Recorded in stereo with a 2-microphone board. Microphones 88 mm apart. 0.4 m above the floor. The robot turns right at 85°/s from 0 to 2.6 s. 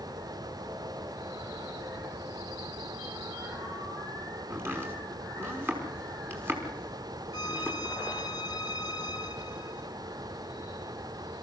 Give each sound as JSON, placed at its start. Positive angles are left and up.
{"t": 4.5, "sound": "chopping", "side_deg": -25, "distance_m": 5.0}
{"t": 7.3, "sound": "a violin", "side_deg": 50, "distance_m": 1.2}